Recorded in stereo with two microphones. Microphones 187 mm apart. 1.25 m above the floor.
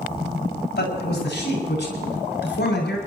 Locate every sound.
0.4 s a man speaking: 90° left, 8 m; by 3.0 s 80° left, 9 m